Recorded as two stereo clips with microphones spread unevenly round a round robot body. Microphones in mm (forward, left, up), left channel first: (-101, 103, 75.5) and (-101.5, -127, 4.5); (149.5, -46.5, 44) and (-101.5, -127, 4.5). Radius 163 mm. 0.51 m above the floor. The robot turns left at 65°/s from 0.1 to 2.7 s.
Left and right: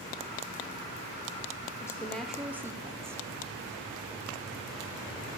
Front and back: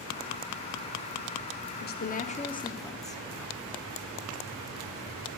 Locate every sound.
1.8 s a woman speaking: 5° right, 0.7 m; by 3.2 s 60° right, 0.7 m